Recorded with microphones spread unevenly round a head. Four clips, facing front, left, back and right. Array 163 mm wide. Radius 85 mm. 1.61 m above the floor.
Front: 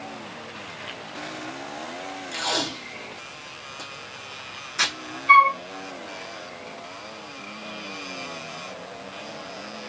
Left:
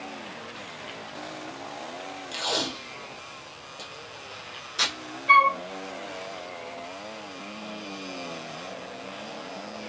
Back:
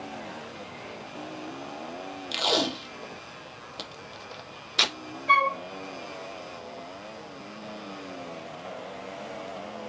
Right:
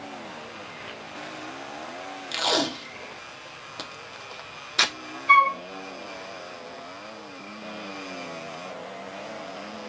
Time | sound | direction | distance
2.3 | tape being pulled | 140° right | 0.6 m
5.3 | a flute | 140° left | 1.5 m